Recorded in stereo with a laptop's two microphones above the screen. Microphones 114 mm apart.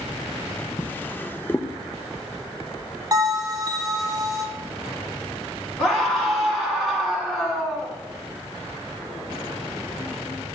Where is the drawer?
15° left (ahead or behind), 0.5 m.